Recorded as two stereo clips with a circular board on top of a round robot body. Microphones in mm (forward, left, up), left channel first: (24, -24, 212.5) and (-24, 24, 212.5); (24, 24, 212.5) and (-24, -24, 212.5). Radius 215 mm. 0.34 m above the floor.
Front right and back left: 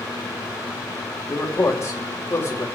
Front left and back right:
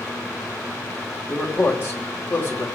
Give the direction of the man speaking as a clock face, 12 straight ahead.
12 o'clock.